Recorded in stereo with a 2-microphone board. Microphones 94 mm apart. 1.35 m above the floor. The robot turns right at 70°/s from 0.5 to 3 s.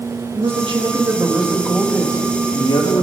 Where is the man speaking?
75° right, 2 m; by 3.0 s 100° left, 2 m.